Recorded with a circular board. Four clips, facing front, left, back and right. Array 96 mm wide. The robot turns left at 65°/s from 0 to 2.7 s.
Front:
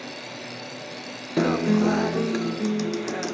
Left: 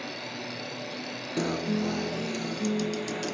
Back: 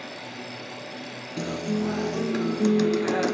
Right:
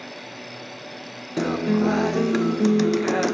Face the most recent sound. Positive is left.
turn(degrees=-105)